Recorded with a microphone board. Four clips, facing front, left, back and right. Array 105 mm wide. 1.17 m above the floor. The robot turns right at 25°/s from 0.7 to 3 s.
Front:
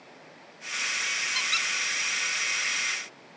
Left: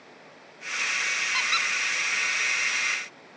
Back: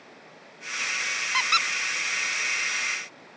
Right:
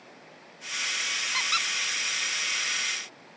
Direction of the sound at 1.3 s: 175° left.